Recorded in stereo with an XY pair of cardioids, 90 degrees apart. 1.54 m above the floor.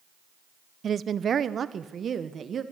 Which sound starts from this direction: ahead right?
A woman speaking, at 0.8 s.